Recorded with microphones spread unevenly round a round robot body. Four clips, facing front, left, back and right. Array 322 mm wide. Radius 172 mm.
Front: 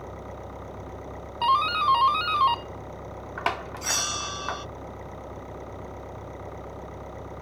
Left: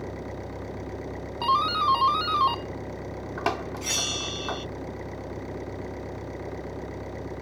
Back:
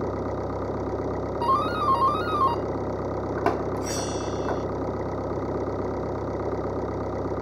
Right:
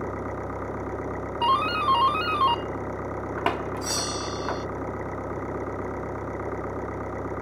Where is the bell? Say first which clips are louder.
Right 4 dB, back 5 dB; 5° right.